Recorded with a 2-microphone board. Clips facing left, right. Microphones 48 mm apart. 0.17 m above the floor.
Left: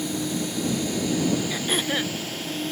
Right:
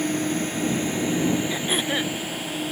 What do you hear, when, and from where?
0.0 s a drone: 45° right (ahead or behind); by 2.7 s 10° right (ahead or behind)
1.5 s throat clearing: 5° right (ahead or behind)